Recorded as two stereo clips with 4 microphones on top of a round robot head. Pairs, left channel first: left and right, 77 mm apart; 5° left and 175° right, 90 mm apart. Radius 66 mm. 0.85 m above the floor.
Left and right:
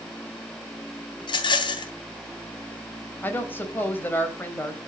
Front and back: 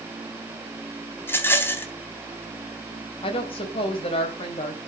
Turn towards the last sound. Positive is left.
turn(degrees=25)